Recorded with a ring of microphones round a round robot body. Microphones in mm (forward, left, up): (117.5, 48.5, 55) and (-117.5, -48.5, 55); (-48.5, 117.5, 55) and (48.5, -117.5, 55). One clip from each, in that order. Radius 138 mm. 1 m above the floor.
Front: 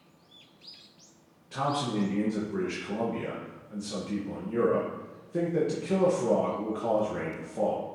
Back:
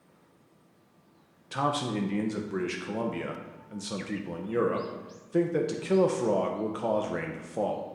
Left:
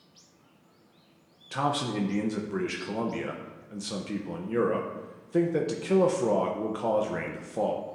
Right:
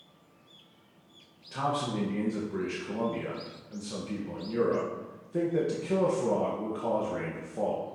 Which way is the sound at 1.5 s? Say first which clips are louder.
Back 1 dB, left 2 dB; 160° left.